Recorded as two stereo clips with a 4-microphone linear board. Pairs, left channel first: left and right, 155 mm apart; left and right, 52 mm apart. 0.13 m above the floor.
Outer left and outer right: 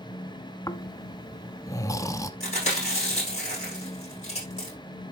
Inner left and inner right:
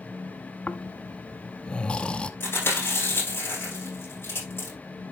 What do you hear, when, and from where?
0.7 s snoring: 20° left (ahead or behind), 0.7 m
2.4 s chewing: 45° left (ahead or behind), 6.5 m